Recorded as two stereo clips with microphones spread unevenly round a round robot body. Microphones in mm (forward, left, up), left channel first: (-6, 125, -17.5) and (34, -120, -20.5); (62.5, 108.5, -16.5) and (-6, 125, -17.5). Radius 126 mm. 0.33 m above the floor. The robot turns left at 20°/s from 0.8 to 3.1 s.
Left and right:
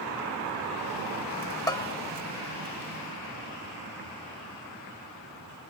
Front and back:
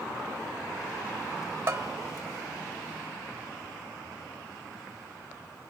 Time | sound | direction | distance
1.7 | a bell | 170° left | 0.7 m